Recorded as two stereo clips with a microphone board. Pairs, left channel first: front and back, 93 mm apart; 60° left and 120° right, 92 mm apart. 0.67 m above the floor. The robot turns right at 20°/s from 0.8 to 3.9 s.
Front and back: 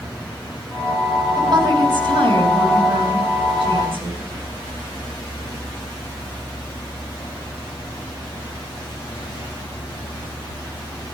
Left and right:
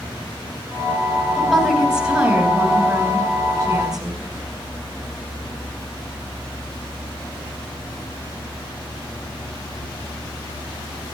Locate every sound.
1.4 s a woman speaking: 145° left, 5 m; by 4.2 s 165° right, 5 m